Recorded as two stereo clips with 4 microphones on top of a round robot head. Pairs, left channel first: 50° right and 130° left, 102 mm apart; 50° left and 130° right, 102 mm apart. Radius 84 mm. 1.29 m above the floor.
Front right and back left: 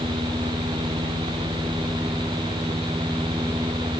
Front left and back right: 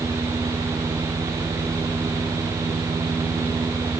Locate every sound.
Only background noise.